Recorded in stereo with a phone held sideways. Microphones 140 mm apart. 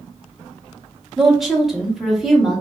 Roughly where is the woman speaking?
Centre.